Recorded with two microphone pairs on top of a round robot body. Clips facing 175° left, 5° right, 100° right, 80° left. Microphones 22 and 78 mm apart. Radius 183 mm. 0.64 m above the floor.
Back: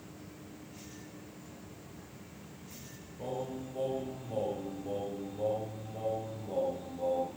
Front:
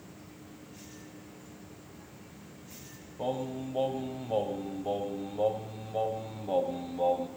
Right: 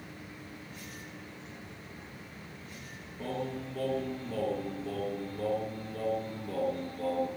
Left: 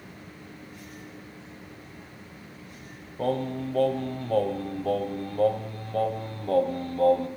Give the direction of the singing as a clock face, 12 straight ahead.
10 o'clock.